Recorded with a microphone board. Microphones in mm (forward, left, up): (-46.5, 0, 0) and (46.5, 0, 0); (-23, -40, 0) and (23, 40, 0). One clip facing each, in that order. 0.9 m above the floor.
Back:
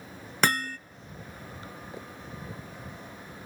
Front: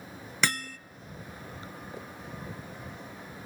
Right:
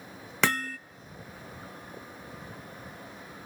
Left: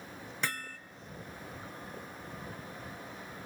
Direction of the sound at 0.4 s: 135° right.